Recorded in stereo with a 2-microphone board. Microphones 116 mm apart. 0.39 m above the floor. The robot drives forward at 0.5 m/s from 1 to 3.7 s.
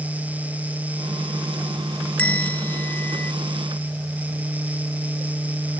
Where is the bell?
10° left (ahead or behind); by 3.3 s 15° left (ahead or behind).